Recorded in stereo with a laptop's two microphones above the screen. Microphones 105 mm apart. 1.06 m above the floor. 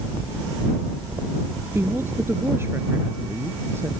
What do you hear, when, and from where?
1.8 s a woman speaking: 25° right (ahead or behind)